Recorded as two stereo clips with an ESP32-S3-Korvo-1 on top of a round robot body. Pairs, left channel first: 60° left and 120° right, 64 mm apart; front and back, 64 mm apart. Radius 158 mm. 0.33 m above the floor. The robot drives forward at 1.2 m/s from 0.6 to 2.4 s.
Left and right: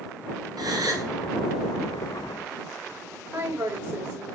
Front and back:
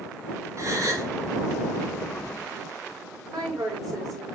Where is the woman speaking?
175° left, 7 m.